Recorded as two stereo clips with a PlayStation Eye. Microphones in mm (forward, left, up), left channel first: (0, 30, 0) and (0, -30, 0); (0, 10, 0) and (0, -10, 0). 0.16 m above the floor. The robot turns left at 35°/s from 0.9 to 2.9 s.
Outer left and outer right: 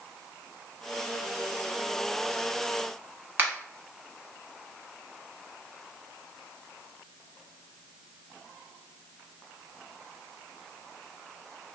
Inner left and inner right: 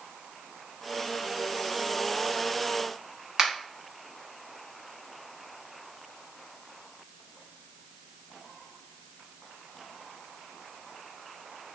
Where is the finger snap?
35° right (ahead or behind), 1.1 m.